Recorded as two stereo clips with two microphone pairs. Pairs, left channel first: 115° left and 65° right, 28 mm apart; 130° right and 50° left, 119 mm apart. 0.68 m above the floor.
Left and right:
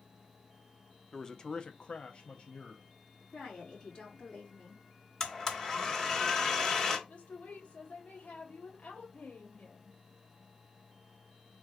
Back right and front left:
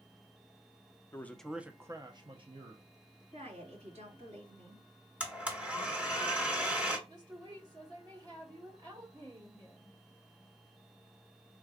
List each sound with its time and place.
1.1 s a man speaking: 175° left, 0.6 m; by 2.8 s 70° left, 1.0 m
3.3 s a woman speaking: 60° left, 3.5 m
5.2 s a blender: 110° left, 1.2 m
7.1 s a woman speaking: 100° left, 1.5 m